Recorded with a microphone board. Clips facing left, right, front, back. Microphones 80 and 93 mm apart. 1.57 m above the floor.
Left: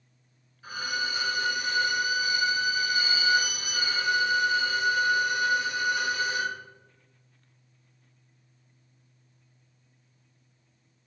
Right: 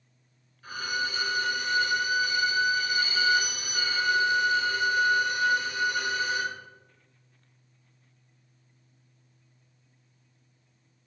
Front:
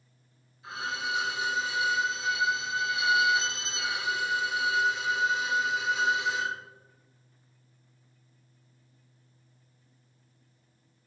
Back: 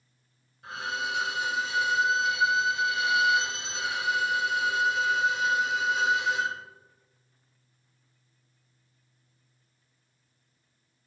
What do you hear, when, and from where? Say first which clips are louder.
0.6 s a violin: even, back 1 dB; 165° left, 1.8 m